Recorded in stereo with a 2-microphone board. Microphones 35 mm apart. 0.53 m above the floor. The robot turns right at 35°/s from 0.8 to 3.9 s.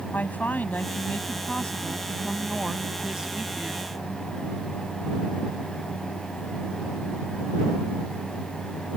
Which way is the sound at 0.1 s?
120° left.